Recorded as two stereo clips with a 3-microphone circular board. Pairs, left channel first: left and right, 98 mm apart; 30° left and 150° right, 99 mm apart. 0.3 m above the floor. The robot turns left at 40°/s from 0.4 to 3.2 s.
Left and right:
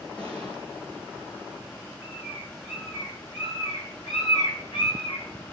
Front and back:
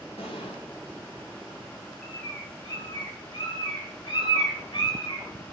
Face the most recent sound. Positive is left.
turn(degrees=65)